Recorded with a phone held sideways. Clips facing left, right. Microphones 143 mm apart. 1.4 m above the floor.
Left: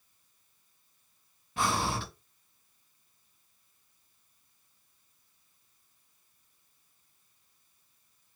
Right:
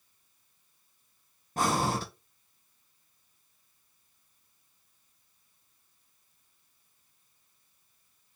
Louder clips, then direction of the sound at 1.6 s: Right 3 dB; 40° right (ahead or behind).